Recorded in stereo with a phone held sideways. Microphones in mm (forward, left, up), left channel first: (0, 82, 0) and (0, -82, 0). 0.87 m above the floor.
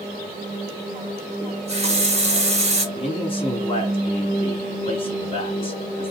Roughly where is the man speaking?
Left.